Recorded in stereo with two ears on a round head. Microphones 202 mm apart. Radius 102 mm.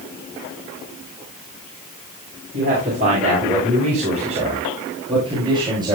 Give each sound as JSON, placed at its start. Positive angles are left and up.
{"t": 2.5, "sound": "a man speaking", "side_deg": -40, "distance_m": 9.5}